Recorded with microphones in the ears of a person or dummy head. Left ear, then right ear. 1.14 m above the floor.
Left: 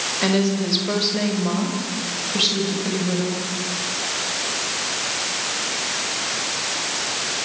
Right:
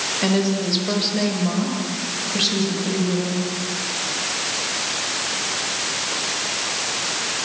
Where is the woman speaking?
10° left (ahead or behind), 5 m; by 3.5 s 5° left (ahead or behind), 7 m.